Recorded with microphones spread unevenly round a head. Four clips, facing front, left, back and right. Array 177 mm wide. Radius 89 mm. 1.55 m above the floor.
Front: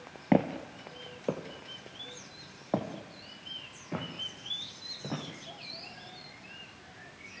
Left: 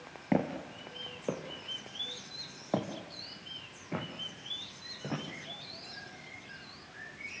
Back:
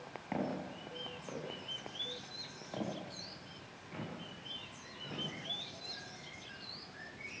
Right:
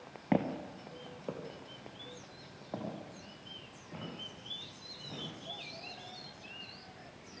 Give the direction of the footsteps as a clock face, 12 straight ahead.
12 o'clock.